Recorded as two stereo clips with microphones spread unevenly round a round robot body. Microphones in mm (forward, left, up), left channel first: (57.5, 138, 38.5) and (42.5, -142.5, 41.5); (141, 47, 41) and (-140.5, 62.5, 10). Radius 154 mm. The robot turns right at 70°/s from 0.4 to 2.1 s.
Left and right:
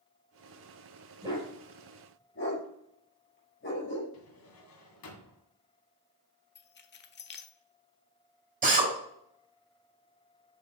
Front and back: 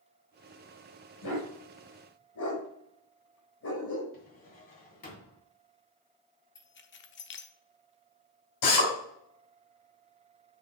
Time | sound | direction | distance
1.2 | a dog barking | 25° right | 4 m
4.1 | a drawer | 60° left | 2.5 m
6.5 | keys jangling | 45° left | 0.9 m
8.6 | a drill | 35° right | 3.5 m